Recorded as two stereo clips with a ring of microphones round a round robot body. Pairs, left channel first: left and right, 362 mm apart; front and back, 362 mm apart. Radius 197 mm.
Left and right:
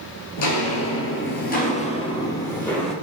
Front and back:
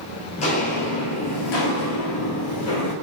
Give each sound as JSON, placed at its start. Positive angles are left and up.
{"t": 0.4, "sound": "footsteps", "azimuth_deg": 70, "distance_m": 1.0}